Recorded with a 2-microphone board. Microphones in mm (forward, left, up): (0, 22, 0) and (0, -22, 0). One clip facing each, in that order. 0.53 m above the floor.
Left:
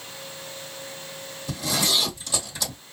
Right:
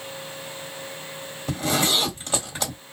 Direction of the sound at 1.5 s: 45° right (ahead or behind).